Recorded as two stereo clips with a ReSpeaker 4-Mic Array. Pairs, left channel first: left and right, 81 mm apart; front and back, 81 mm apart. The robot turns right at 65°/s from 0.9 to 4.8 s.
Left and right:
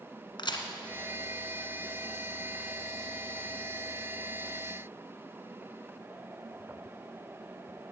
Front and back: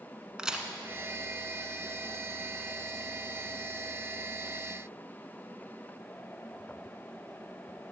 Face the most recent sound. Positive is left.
turn(degrees=-10)